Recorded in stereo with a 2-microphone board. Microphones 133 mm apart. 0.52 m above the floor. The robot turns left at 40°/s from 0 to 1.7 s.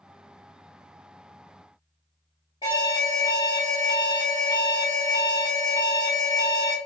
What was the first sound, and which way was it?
An alarm, 30° left (ahead or behind).